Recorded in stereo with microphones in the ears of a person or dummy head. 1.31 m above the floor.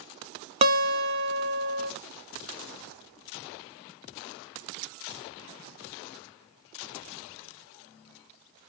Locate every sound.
0.6 s a guitar: 35° right (ahead or behind), 0.7 m